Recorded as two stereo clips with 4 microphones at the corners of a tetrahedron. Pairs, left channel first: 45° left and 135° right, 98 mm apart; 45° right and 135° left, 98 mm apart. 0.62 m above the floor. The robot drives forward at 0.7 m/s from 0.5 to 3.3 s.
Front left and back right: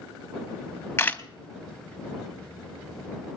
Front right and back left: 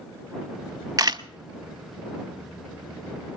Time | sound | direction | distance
1.0 | a camera shutter | 100° left | 0.6 m